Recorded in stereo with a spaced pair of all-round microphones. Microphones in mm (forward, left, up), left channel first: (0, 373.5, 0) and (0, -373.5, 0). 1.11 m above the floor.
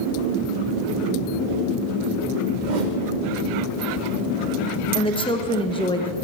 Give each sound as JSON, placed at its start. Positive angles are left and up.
{"t": 2.6, "sound": "a whoosh", "side_deg": -75, "distance_m": 1.1}
{"t": 5.0, "sound": "a woman speaking", "side_deg": 5, "distance_m": 1.0}